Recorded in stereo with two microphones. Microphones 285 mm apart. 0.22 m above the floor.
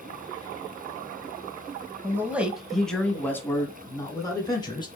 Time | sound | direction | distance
2.0 | a man speaking | 10° right (ahead or behind) | 1.0 m